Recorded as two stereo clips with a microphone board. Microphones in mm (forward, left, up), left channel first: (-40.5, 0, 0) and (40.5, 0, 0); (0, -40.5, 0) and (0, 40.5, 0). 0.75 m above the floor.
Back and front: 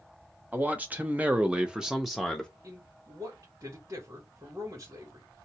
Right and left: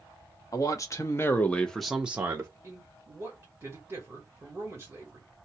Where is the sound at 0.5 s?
65° right, 0.9 m; by 2.5 s 100° left, 0.6 m.